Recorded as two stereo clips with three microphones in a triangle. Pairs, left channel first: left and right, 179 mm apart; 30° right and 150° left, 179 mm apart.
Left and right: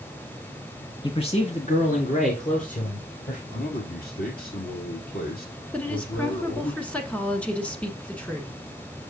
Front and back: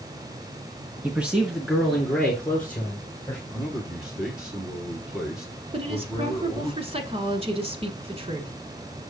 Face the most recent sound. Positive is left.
turn(degrees=165)